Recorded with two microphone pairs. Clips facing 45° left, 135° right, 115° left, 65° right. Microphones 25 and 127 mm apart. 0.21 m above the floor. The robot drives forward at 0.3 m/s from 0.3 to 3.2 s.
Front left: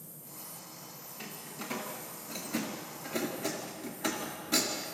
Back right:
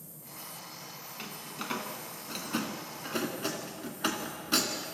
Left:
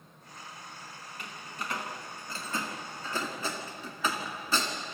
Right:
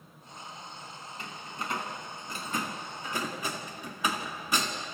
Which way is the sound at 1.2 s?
120° right.